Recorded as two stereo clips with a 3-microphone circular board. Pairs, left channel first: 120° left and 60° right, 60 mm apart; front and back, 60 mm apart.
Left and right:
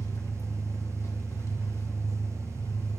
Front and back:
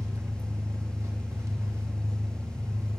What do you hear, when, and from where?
0.0 s an engine running: 150° left, 1.3 m